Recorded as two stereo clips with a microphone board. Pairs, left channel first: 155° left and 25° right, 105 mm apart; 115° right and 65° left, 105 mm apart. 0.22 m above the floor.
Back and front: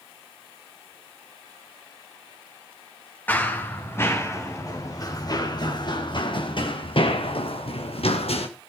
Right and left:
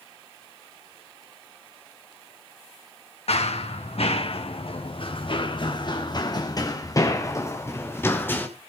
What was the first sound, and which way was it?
Running footsteps, 130° right.